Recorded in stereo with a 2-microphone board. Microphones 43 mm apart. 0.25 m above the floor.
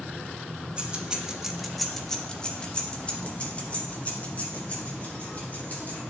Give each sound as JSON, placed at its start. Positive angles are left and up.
{"t": 0.8, "sound": "keys jangling", "side_deg": -25, "distance_m": 0.9}